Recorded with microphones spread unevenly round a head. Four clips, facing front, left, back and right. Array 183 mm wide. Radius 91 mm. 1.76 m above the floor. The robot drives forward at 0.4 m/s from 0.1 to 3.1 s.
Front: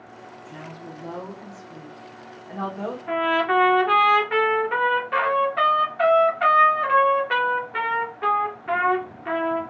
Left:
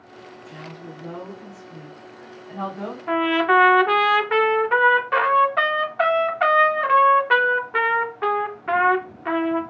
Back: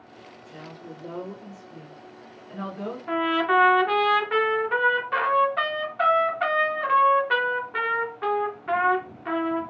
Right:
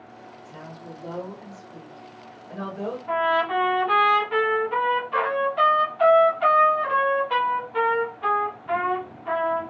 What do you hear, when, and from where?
0.5 s a woman speaking: 25° left, 2.5 m; by 3.0 s 40° left, 1.9 m
3.1 s a trumpet: 85° left, 0.9 m